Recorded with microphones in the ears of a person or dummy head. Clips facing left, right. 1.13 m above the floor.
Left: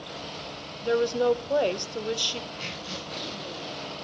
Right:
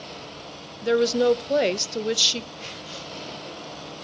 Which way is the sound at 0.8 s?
25° right (ahead or behind).